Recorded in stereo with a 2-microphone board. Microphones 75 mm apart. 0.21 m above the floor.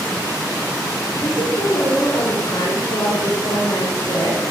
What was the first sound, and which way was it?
A woman speaking, 80° left.